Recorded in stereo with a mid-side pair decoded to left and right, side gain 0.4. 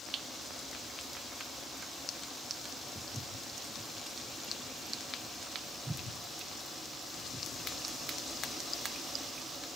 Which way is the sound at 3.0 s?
10° right.